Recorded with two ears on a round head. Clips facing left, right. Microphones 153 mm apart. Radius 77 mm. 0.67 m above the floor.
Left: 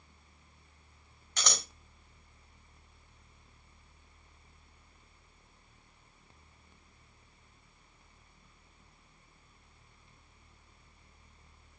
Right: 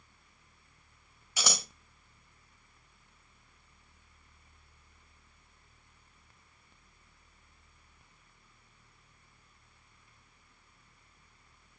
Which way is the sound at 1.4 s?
10° right (ahead or behind).